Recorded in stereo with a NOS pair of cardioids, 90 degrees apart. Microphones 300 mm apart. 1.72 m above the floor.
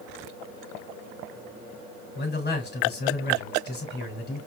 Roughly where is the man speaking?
Ahead left.